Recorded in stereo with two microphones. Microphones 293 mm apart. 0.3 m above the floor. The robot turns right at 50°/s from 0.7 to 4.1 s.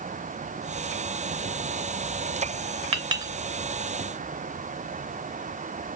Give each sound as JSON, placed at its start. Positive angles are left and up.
{"t": 2.9, "sound": "a clink", "side_deg": -20, "distance_m": 0.7}